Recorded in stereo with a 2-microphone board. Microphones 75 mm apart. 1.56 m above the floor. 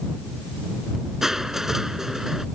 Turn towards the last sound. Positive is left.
turn(degrees=-5)  # may be behind; listen again after turning